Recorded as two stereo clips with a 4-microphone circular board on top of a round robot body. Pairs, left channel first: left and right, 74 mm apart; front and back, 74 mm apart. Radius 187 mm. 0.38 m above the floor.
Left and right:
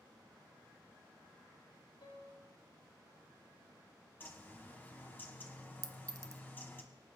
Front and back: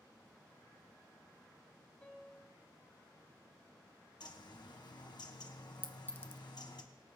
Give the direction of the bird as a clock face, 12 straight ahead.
11 o'clock.